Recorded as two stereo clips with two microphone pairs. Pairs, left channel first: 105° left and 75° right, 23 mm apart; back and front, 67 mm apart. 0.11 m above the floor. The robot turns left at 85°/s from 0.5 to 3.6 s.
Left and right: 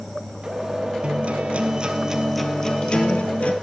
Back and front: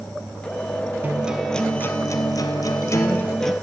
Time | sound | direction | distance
1.0 | a guitar | 55° right | 2.5 m